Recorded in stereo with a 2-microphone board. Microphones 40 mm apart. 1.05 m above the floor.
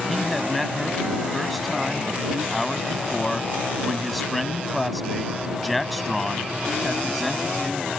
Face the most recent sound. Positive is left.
turn(degrees=0)  # may be behind; listen again after turning